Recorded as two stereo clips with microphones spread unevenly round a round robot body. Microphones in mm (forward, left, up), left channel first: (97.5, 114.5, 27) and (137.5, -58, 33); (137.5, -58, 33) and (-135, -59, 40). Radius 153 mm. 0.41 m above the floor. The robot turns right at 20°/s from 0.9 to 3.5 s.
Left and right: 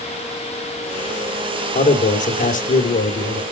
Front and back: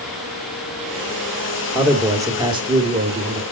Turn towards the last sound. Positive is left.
turn(degrees=130)